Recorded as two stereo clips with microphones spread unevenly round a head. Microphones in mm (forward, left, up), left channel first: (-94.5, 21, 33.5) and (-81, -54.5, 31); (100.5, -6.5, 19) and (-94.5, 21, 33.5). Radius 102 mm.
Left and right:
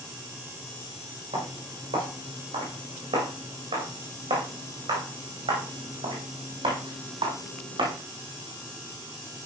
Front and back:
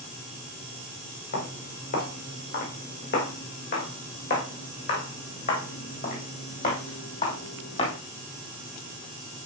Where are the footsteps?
50° right, 6.5 m; by 8.0 s 70° right, 3.5 m.